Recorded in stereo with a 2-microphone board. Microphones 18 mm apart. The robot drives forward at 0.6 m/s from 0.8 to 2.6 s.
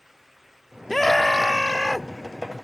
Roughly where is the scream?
Centre.